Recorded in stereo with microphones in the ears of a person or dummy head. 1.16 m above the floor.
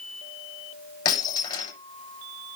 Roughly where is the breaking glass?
Left.